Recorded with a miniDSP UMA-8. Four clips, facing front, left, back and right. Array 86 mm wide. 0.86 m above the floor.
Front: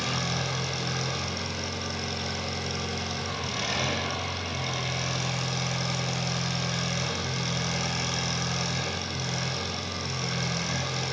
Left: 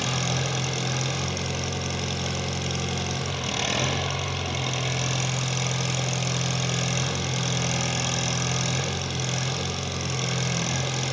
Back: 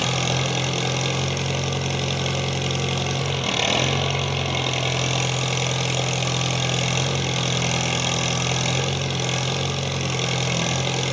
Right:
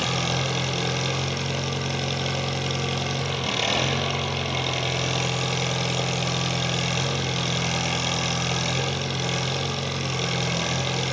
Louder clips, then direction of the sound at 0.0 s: Right 2 dB, back 6 dB; 165° right.